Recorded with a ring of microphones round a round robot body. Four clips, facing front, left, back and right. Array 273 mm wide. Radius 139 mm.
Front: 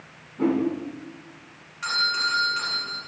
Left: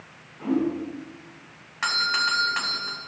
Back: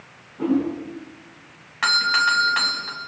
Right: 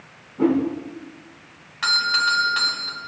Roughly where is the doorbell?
Behind.